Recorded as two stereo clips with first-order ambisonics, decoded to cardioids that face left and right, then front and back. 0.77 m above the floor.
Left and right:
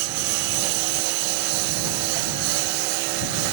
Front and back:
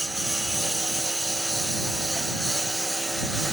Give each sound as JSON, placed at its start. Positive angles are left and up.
{"t": 0.0, "sound": "a lawn mower", "azimuth_deg": -95}